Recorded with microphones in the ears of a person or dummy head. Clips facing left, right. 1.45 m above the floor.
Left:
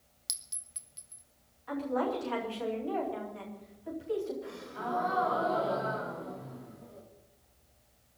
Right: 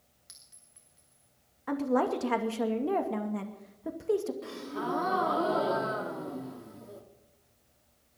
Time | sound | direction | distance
0.3 | a clink | 50° left (ahead or behind) | 1.4 m
1.7 | a woman speaking | 60° right (ahead or behind) | 2.5 m
4.4 | a gasp | 60° right (ahead or behind) | 3 m